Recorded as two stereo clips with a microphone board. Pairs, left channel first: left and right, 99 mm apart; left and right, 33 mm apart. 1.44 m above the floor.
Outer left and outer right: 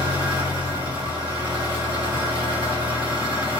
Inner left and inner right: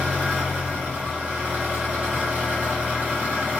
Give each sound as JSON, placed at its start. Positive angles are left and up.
{"t": 0.0, "sound": "an engine running", "side_deg": -50, "distance_m": 1.5}